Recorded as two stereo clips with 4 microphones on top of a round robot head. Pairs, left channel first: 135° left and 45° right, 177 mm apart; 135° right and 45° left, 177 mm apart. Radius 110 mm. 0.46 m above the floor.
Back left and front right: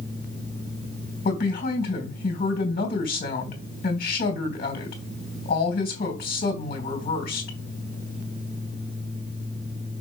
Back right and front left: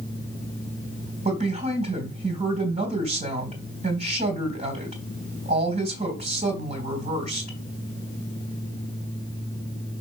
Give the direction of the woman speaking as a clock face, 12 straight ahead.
9 o'clock.